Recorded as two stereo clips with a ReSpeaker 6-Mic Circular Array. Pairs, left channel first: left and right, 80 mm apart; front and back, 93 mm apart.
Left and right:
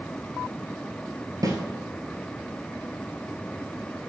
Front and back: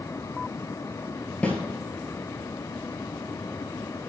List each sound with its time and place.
1.4 s a snare drum: 70° right, 1.3 m